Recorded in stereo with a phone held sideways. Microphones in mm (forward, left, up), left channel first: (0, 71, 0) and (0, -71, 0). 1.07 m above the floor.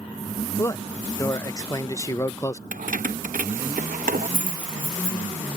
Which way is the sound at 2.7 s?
75° right (ahead or behind).